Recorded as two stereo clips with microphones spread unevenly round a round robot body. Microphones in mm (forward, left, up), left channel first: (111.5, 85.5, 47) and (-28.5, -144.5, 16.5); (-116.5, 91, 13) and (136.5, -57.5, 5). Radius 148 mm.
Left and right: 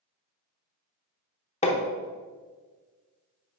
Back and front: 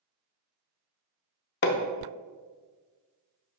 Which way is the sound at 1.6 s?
115° left.